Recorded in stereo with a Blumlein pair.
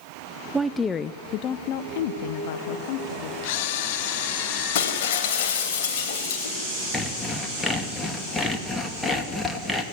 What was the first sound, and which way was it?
A woman speaking, 5° right.